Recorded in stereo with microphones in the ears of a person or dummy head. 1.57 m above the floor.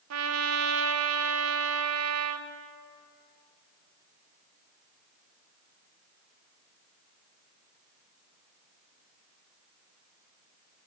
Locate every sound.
0.1 s a trumpet: 75° right (ahead or behind), 0.5 m